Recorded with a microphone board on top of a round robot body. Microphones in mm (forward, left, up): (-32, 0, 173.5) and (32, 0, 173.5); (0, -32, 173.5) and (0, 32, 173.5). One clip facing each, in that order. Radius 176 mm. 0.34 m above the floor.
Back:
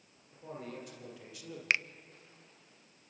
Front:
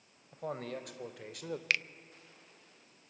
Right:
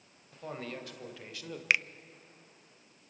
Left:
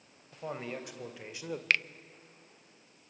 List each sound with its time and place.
0.3 s a man speaking: 15° left, 3 m; by 1.6 s 25° left, 2 m
1.7 s a finger snap: 155° right, 0.6 m